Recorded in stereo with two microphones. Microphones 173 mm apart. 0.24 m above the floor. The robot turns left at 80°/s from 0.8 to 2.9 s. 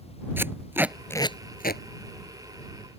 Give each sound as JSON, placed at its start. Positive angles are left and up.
{"t": 0.4, "sound": "tape being pulled", "side_deg": -10}